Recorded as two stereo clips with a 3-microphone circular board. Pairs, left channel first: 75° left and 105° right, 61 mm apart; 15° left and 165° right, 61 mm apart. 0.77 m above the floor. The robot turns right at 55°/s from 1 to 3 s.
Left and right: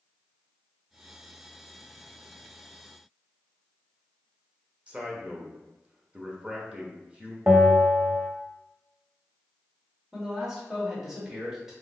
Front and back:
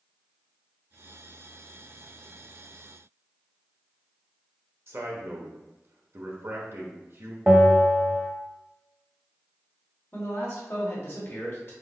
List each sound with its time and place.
4.9 s a man speaking: 165° right, 0.9 m
7.5 s a bell: 120° right, 0.6 m
10.1 s a man speaking: 20° right, 1.5 m